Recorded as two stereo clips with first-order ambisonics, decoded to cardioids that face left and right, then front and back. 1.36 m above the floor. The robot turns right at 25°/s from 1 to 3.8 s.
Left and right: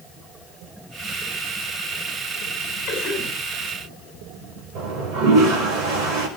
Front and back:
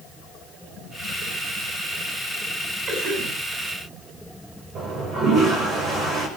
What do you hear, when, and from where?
2.9 s a cough: 135° left, 9.5 m; by 3.3 s 145° left, 9.5 m
4.8 s a toilet flushing: 125° right, 5.5 m